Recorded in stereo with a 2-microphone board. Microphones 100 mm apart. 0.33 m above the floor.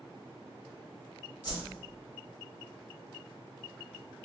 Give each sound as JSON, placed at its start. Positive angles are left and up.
{"t": 1.4, "sound": "a whoosh", "side_deg": 45, "distance_m": 1.1}